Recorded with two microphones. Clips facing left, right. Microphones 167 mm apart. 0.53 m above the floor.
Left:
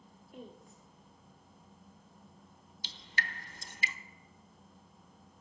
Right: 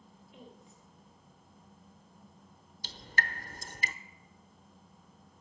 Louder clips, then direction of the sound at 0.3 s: Left 4 dB; 50° left (ahead or behind).